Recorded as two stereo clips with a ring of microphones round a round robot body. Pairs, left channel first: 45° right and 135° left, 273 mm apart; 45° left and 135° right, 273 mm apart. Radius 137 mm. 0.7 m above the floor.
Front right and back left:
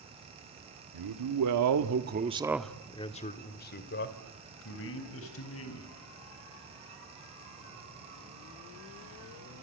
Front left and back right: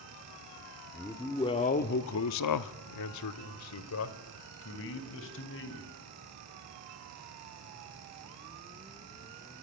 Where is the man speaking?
130° left, 1.8 m; by 5.9 s 5° right, 4.5 m.